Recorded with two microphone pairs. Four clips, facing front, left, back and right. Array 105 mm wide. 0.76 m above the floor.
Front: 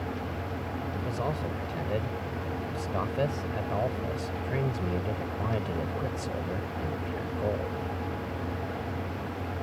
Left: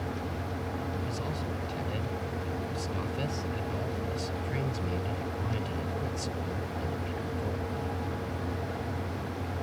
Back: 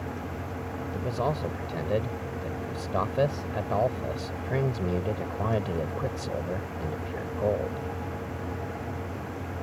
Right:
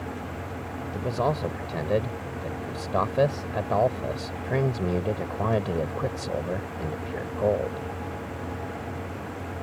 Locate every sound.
0.9 s a man speaking: 110° right